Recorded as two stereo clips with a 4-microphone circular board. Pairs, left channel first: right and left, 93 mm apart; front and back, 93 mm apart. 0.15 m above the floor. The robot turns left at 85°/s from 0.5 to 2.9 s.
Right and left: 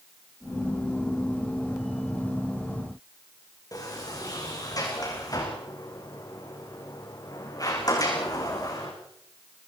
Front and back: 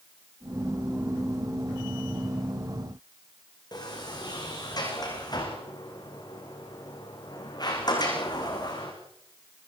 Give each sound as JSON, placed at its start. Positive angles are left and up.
{"t": 3.7, "sound": "a sliding door", "azimuth_deg": -45, "distance_m": 7.5}